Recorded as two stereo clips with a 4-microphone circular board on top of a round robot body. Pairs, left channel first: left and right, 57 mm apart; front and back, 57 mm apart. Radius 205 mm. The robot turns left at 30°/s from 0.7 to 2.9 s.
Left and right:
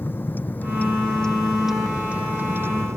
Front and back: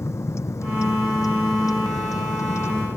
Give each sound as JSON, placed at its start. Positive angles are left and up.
{"t": 0.0, "sound": "a vehicle", "azimuth_deg": 35}